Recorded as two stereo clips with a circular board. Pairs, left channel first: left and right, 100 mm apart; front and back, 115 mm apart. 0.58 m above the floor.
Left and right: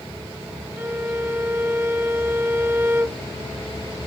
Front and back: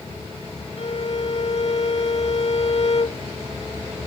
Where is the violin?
20° right.